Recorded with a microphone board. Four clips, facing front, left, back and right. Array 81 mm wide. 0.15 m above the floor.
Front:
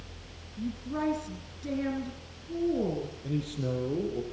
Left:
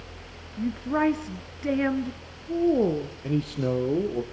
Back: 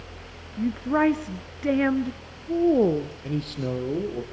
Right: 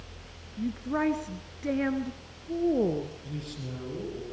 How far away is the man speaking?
About 4.5 m.